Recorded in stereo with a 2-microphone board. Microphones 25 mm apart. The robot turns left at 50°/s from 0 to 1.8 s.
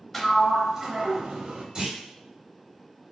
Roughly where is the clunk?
Right.